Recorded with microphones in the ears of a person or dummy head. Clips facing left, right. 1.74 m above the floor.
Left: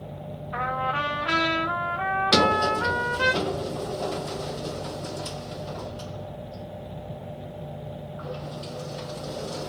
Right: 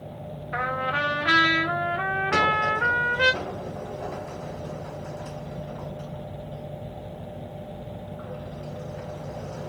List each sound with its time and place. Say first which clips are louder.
0.5 s a trumpet: even; 20° right (ahead or behind), 1.0 m
2.3 s a sliding door: left 5 dB; 50° left (ahead or behind), 0.6 m